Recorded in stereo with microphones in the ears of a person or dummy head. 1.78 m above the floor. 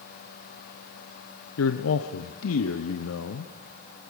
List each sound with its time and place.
1.6 s a man speaking: 85° left, 1.1 m